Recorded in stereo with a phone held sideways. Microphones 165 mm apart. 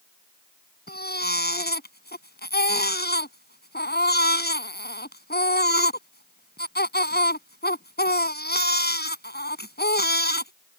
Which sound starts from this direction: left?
A baby crying, at 0.9 s.